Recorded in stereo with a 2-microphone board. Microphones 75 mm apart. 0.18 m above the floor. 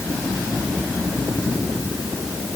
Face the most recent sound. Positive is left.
No sound to turn to.